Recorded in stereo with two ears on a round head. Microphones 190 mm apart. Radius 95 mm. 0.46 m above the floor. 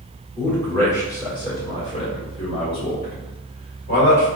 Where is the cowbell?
No cowbell in this recording.